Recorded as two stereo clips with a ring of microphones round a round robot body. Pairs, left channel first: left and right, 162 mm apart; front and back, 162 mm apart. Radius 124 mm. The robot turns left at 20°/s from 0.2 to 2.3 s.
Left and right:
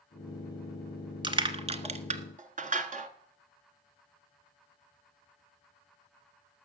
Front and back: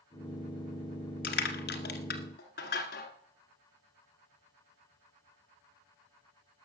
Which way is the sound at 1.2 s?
30° right.